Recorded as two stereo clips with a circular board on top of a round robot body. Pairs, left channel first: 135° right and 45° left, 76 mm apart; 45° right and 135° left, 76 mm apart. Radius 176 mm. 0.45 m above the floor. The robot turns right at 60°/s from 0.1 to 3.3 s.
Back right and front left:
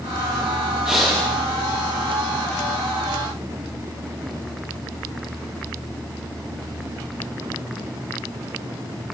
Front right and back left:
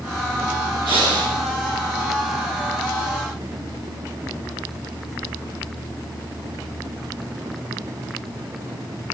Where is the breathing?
125° left, 1.1 m; by 1.4 s 155° left, 1.1 m.